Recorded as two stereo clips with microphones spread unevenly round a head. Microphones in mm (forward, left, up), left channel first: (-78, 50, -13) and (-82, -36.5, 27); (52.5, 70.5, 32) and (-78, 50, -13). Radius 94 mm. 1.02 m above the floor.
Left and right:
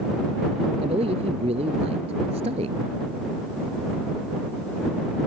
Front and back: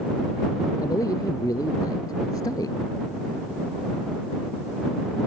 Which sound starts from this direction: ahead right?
A man speaking, at 0.8 s.